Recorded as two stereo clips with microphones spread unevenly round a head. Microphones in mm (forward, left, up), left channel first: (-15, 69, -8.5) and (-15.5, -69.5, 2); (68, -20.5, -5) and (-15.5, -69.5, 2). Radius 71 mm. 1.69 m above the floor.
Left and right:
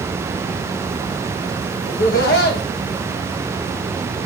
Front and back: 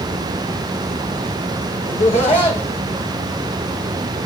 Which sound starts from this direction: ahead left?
Laughter, at 1.9 s.